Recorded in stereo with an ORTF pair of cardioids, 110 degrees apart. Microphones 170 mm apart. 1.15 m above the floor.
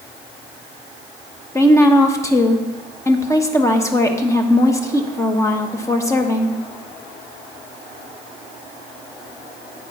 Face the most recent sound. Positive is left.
turn(degrees=15)